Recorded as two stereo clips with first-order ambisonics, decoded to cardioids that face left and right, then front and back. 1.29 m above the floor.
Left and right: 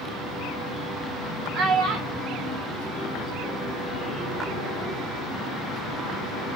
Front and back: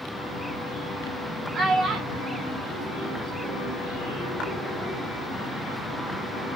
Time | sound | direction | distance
1.5 | a child speaking | 110° right | 0.9 m